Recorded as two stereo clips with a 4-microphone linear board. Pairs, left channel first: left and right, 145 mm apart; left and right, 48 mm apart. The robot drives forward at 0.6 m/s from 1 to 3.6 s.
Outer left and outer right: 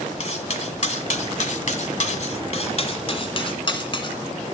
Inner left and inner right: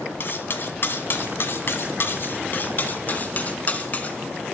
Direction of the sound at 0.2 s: 55° left (ahead or behind).